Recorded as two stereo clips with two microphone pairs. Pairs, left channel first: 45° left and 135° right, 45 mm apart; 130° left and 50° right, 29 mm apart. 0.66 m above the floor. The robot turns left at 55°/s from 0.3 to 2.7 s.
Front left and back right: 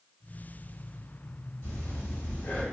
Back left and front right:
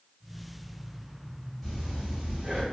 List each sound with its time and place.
1.6 s breathing: 45° left, 1.1 m; by 2.6 s 10° right, 1.1 m